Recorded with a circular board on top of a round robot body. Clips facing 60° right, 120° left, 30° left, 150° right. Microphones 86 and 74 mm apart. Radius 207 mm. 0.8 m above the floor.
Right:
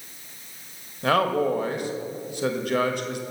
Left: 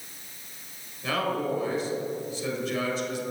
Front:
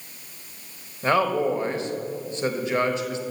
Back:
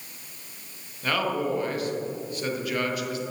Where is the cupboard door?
No cupboard door in this recording.